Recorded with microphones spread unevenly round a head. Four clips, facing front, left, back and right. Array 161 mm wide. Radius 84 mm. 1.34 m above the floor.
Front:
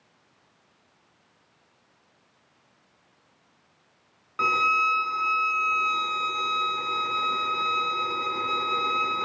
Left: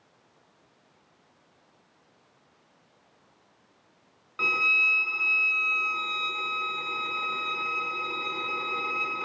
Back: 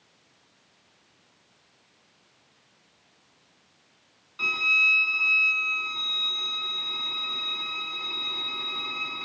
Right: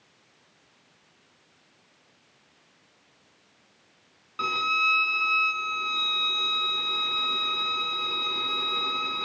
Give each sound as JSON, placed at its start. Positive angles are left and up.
{"t": 4.4, "sound": "a violin", "azimuth_deg": -10, "distance_m": 0.9}